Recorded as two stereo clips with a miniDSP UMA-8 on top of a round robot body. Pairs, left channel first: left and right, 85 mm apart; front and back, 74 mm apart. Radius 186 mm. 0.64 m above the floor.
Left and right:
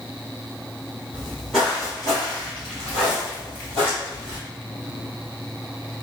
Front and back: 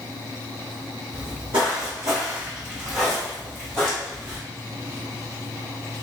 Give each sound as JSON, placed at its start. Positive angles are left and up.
{"t": 1.1, "sound": "footsteps", "azimuth_deg": -165, "distance_m": 1.0}